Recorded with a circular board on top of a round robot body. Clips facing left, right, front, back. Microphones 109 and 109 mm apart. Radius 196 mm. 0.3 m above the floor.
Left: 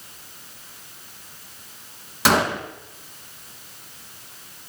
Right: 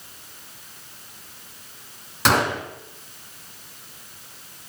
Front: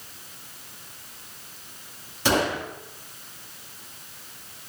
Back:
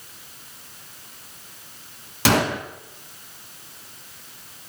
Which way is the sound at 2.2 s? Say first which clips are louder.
Left 1 dB, back 3 dB; 175° left.